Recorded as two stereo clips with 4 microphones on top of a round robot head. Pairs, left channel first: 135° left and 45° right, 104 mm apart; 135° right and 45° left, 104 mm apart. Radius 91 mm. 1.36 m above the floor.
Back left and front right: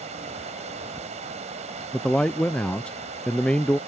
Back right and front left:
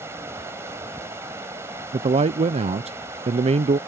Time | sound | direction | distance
0.0 | running water | 25° right | ?
1.9 | a man speaking | 55° left | ?